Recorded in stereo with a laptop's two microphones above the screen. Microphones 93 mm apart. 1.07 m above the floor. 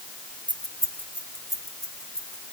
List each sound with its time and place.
0.5 s keys jangling: 50° right (ahead or behind), 1.0 m; by 2.4 s 10° left (ahead or behind), 3 m